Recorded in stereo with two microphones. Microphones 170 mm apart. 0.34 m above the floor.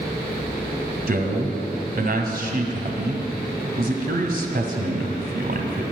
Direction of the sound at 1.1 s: 65° right (ahead or behind).